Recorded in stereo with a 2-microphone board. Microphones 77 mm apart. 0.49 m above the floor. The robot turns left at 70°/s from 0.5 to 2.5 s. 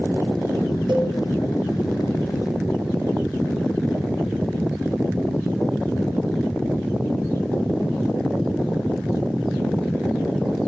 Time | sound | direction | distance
0.9 | a cowbell | 85° right | 10 m